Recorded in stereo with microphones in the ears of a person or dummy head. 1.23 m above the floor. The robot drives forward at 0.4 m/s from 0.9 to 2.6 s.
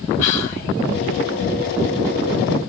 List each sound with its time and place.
0.2 s whispering: 45° left (ahead or behind), 1.1 m